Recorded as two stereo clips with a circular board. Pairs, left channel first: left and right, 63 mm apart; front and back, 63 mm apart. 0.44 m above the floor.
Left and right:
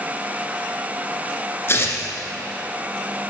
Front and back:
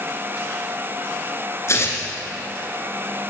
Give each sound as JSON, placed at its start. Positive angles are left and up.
{"t": 1.7, "sound": "tearing paper", "azimuth_deg": 40, "distance_m": 1.9}